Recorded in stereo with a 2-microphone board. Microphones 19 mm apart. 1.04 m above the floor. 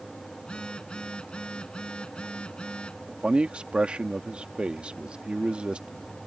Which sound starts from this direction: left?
A phone buzzing, at 0.4 s.